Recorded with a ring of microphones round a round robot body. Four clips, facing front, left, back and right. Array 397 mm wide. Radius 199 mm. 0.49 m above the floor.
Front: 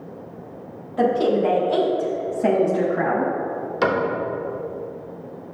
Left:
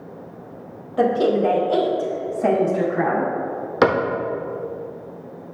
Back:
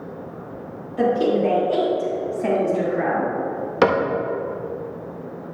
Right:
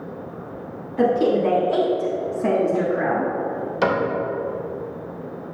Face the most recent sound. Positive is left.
turn(degrees=125)